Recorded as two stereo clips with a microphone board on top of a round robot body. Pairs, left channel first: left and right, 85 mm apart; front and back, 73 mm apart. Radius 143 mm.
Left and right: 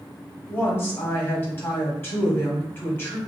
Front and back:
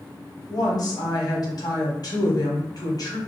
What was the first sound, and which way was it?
A woman speaking, 30° left.